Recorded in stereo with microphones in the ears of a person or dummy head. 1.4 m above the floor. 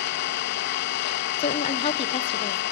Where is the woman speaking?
30° left (ahead or behind), 1.0 m.